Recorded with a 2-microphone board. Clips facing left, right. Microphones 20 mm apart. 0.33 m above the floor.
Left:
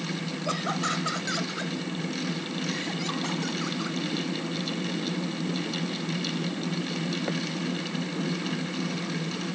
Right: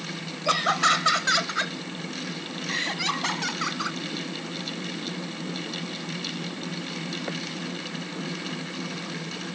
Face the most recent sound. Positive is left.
turn(degrees=-40)  # may be behind; listen again after turning